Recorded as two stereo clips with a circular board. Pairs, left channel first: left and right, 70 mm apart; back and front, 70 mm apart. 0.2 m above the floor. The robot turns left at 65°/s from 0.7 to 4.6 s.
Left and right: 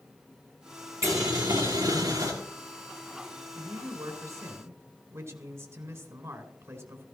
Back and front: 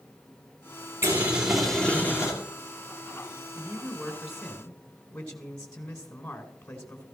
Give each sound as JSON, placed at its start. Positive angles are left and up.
{"t": 1.0, "sound": "boiling", "azimuth_deg": -50, "distance_m": 3.5}
{"t": 3.5, "sound": "a man speaking", "azimuth_deg": -40, "distance_m": 1.8}